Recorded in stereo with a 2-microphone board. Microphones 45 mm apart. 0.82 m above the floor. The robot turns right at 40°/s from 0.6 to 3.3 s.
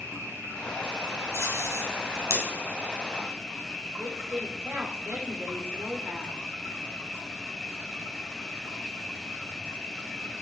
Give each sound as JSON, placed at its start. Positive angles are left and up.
{"t": 0.0, "sound": "an insect", "azimuth_deg": -110, "distance_m": 4.0}
{"t": 1.3, "sound": "tape being pulled", "side_deg": -65, "distance_m": 4.0}
{"t": 4.0, "sound": "a woman speaking", "side_deg": -60, "distance_m": 3.0}